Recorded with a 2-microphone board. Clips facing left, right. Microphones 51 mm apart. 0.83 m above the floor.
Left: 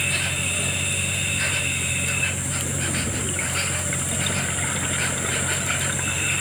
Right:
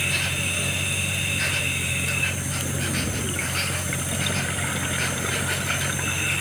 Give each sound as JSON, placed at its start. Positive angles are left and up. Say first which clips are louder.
{"t": 0.0, "sound": "an insect", "louder": "even", "side_deg": 5}